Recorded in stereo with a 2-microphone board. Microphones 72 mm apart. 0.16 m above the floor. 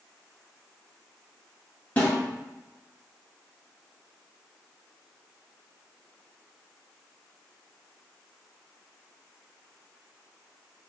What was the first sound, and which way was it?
A snare drum, 25° left (ahead or behind).